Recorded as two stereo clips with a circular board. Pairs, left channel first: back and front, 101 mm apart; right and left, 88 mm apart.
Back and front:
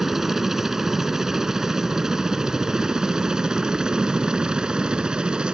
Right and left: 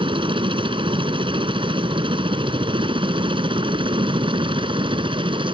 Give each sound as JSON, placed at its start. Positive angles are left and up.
{"t": 0.0, "sound": "a helicopter", "azimuth_deg": 85}